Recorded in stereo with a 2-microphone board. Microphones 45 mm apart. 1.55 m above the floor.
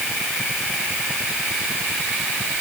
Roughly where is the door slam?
No door slam in this recording.